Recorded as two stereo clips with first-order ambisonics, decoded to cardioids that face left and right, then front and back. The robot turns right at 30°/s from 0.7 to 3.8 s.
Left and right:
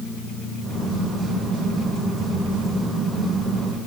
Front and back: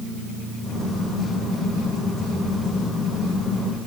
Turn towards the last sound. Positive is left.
No sound to turn to.